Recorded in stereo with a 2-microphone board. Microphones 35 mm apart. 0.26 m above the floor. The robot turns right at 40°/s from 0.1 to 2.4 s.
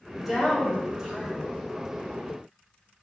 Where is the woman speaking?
5° right (ahead or behind), 1.3 m; by 1.4 s 20° right (ahead or behind), 1.3 m.